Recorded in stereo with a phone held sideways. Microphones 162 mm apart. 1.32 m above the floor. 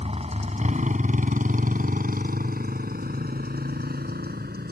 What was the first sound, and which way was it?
A motorcycle, 40° right (ahead or behind).